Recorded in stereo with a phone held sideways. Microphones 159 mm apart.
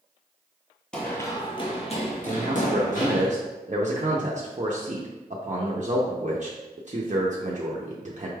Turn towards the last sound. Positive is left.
turn(degrees=-50)  # may be behind; listen again after turning